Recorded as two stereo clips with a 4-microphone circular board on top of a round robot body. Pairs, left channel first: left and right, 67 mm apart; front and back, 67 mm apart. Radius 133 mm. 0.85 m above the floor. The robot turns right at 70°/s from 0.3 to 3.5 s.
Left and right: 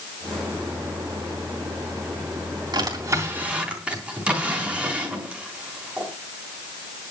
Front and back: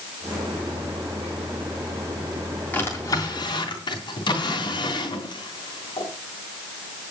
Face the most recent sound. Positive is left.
turn(degrees=-15)